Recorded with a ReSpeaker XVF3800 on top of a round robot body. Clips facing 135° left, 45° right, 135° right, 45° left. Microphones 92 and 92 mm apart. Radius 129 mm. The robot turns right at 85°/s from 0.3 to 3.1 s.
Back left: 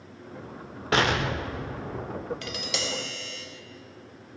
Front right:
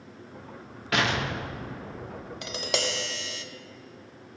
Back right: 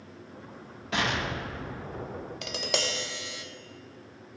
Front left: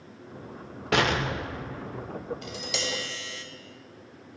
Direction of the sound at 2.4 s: 120° right.